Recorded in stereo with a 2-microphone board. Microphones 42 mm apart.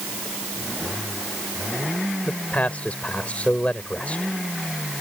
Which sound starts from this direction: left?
A man speaking, at 2.2 s.